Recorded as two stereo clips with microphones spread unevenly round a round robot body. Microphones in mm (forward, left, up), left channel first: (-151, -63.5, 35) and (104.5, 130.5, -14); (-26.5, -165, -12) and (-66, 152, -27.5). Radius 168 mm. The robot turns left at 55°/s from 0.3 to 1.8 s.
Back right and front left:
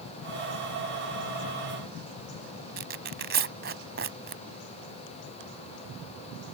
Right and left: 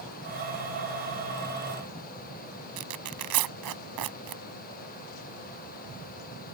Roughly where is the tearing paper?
Left.